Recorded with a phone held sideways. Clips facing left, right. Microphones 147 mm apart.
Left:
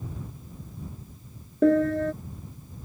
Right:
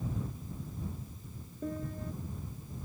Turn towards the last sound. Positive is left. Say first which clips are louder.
# left 18 dB
turn(degrees=85)